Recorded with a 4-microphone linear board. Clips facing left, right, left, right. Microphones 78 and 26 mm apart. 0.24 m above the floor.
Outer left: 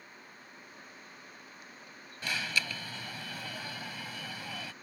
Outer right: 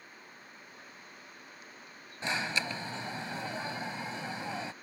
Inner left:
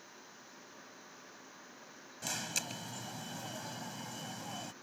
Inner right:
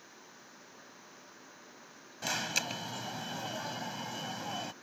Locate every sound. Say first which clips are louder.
2.2 s an alarm: outer right 2 dB, inner right 5 dB; 25° right (ahead or behind)